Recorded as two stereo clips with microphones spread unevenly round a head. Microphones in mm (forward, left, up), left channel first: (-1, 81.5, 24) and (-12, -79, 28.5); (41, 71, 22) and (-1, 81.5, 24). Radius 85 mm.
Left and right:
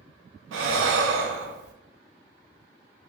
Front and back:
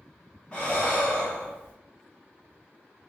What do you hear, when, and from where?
0.5 s breathing: 100° right, 0.5 m